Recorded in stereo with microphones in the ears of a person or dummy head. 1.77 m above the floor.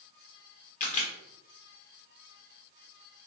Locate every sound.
0.8 s a camera shutter: 45° left (ahead or behind), 1.3 m